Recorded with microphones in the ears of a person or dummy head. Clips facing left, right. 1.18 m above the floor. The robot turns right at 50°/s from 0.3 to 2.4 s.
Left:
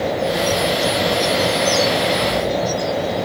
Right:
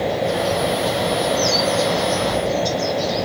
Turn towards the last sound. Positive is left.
No sound to turn to.